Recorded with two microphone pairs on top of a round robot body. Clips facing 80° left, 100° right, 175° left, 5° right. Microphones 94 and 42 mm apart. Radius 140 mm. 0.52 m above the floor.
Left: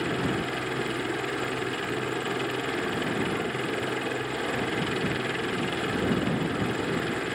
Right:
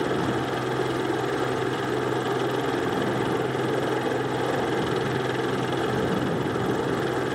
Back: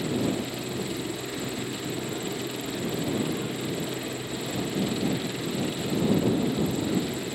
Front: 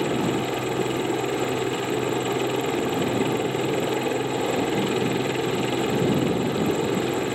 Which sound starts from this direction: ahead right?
A helicopter, at 0.0 s.